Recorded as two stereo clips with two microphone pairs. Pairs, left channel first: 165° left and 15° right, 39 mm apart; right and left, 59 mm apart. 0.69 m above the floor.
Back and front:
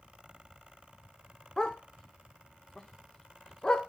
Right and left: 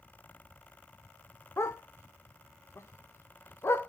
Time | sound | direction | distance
1.6 | a dog barking | 125° right | 0.5 m